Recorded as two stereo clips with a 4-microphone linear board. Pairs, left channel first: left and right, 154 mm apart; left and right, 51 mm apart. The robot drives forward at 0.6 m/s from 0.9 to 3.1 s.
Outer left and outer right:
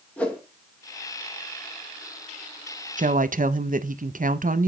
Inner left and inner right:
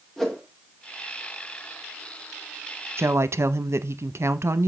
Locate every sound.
0.2 s a whoosh: 10° left (ahead or behind), 1.3 m
3.0 s a woman speaking: 55° right (ahead or behind), 0.5 m; by 4.7 s 60° right (ahead or behind), 0.5 m